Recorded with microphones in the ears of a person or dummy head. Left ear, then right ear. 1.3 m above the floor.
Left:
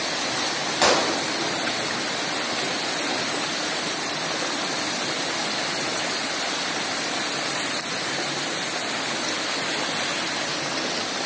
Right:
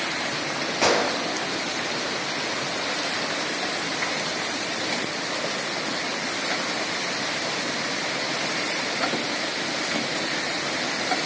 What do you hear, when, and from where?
0.8 s a gunshot: 15° left (ahead or behind), 0.8 m